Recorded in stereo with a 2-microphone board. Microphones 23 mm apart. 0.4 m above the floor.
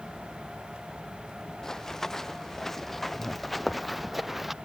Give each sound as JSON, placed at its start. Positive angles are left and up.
{"t": 1.6, "sound": "running footsteps", "side_deg": 25}